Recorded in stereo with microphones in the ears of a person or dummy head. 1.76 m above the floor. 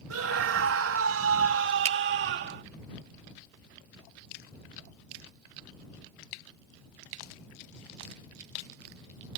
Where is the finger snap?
35° right (ahead or behind).